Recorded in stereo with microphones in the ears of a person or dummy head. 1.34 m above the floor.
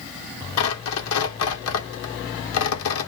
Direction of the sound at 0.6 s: 75° left (ahead or behind).